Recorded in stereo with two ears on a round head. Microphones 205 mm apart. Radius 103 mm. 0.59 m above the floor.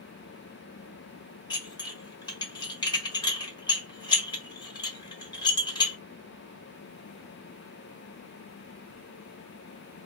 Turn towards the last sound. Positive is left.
turn(degrees=20)  # may be behind; listen again after turning